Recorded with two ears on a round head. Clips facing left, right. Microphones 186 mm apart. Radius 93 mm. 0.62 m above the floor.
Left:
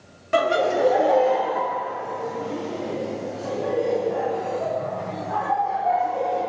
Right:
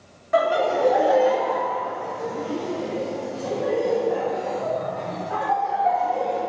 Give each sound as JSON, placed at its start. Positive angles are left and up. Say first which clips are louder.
{"t": 0.3, "sound": "laughter", "louder": "even", "side_deg": 35, "distance_m": 0.7}